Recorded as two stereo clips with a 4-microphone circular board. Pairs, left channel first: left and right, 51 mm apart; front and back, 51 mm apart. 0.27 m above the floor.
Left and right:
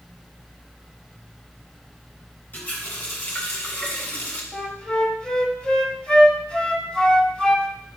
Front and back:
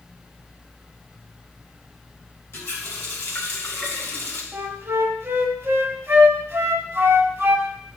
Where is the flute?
160° left, 1.0 m.